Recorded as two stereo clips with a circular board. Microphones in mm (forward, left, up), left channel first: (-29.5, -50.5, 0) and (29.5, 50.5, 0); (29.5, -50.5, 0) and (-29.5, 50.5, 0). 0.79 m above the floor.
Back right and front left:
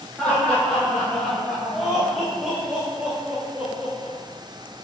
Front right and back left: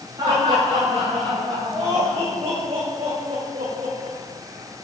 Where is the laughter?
160° left, 4 m; by 4.2 s 135° left, 2.5 m.